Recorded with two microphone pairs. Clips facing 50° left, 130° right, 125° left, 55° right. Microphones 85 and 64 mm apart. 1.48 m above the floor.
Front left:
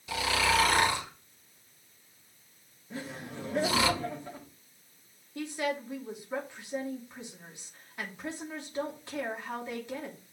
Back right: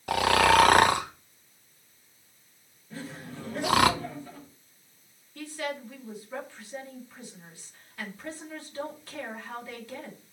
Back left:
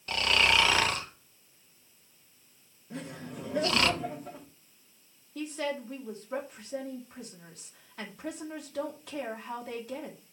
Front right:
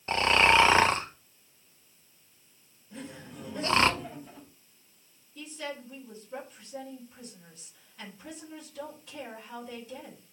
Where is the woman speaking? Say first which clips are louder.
Front left 2 dB, back left 6 dB; 115° left, 2.5 m.